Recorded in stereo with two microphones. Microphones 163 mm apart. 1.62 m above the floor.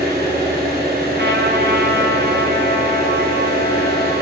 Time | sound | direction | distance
0.0 | an engine running | 65° right (ahead or behind) | 4 m
1.2 | a trumpet | 75° right (ahead or behind) | 2.5 m